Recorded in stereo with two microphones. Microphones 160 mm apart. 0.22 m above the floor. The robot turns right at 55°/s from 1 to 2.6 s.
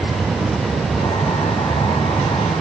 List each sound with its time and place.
Only background noise.